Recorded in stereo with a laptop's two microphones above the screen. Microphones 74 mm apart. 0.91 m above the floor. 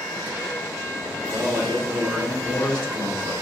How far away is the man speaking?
About 1.7 m.